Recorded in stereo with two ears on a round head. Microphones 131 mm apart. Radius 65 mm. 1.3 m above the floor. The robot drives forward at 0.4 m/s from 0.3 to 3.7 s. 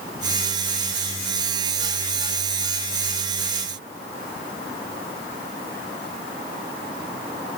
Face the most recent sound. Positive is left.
No sound to turn to.